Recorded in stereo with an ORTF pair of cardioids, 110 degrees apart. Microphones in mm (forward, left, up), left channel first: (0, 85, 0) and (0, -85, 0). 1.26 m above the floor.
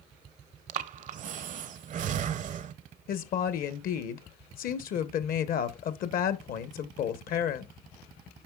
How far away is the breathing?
About 0.5 m.